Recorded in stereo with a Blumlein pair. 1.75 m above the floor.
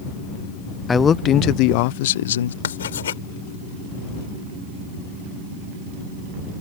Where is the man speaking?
10° left; by 2.5 s 65° left.